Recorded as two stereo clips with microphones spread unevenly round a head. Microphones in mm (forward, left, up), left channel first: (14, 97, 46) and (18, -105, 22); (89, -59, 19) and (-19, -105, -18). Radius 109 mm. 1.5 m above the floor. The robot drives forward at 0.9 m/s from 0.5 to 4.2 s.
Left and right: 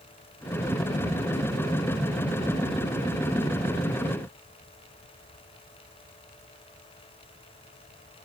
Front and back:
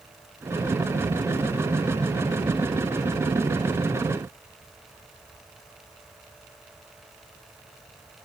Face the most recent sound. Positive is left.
No sound to turn to.